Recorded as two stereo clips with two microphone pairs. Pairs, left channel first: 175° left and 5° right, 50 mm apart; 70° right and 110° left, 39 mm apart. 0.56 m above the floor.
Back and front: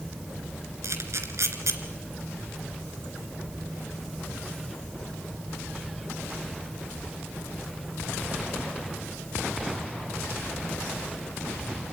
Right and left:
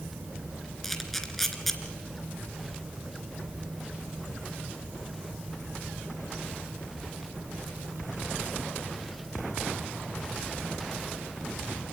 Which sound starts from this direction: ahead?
A camera shutter, at 0.8 s.